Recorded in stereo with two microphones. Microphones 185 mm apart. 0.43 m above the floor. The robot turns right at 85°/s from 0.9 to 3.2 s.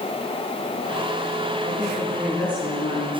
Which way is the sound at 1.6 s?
50° right.